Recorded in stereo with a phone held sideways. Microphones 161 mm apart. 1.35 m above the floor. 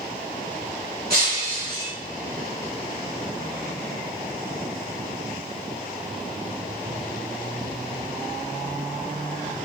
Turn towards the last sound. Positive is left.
turn(degrees=-75)  # may be behind; listen again after turning